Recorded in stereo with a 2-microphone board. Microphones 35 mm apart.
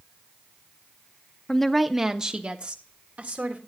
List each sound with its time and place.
1.5 s a woman speaking: 15° left (ahead or behind), 0.7 m; by 3.6 s 50° right (ahead or behind), 1.7 m